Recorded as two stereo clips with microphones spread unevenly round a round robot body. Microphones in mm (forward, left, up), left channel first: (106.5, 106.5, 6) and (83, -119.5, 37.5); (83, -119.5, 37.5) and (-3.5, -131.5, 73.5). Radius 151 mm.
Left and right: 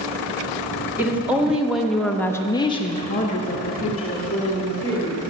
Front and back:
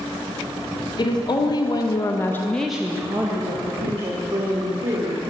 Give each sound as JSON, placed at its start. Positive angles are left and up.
{"t": 1.0, "sound": "a woman speaking", "azimuth_deg": -10, "distance_m": 1.6}